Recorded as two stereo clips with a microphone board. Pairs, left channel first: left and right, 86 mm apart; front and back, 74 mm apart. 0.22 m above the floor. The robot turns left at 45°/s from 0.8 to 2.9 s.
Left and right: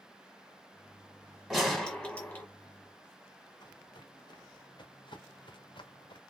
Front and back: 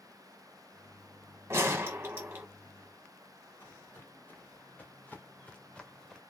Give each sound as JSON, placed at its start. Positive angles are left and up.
{"t": 1.5, "sound": "a gunshot", "azimuth_deg": 180, "distance_m": 1.3}
{"t": 3.6, "sound": "footsteps", "azimuth_deg": 55, "distance_m": 2.0}